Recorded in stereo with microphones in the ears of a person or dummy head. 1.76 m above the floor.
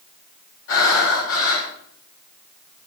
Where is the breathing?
85° left, 5.5 m.